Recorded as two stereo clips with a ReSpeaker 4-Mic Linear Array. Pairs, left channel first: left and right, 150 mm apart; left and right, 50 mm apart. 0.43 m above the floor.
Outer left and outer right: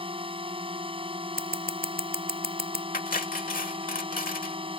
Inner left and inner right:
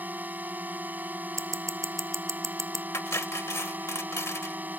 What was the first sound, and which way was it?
A drone, 35° right (ahead or behind).